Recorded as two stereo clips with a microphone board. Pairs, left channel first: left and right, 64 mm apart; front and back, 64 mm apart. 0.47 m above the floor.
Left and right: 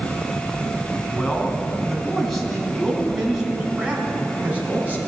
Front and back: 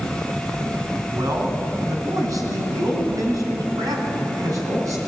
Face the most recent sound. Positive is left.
turn(degrees=-150)